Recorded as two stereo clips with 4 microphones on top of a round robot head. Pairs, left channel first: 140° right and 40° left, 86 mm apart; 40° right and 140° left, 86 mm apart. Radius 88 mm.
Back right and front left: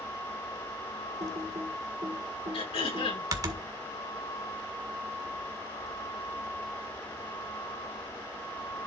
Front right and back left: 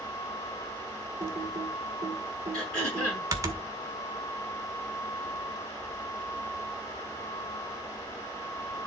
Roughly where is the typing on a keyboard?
Left.